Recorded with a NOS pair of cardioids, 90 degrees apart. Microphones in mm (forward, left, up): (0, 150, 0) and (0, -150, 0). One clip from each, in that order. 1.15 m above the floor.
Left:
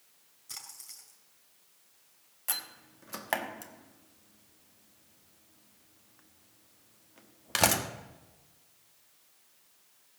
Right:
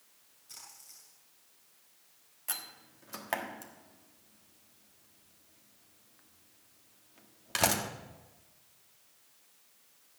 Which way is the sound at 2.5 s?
20° left.